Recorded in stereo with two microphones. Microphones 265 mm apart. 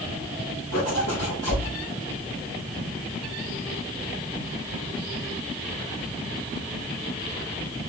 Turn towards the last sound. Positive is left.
turn(degrees=70)  # may be behind; listen again after turning